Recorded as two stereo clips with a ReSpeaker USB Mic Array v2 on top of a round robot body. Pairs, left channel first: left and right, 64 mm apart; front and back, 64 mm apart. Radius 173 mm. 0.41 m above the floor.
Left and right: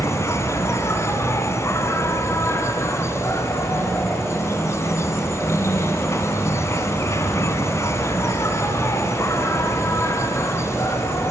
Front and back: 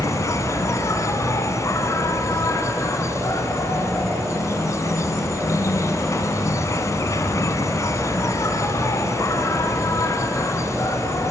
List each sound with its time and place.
0.0 s an insect: 45° left, 1.4 m